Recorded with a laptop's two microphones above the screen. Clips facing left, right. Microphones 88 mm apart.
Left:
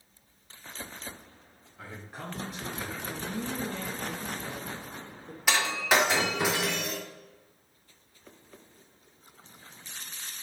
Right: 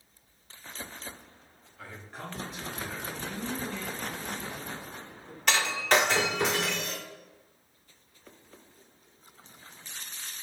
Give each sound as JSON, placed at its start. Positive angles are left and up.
{"t": 1.8, "sound": "a man speaking", "side_deg": 20, "distance_m": 0.8}
{"t": 3.1, "sound": "a woman speaking", "side_deg": 45, "distance_m": 0.7}
{"t": 5.5, "sound": "breaking glass", "side_deg": 5, "distance_m": 1.4}